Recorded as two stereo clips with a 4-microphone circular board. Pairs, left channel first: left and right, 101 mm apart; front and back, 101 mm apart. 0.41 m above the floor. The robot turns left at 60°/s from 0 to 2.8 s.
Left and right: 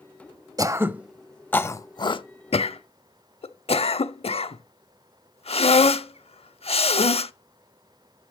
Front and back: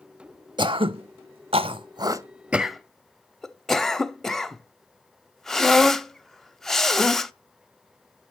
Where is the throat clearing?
140° right, 0.6 m; by 7.3 s 85° left, 0.6 m.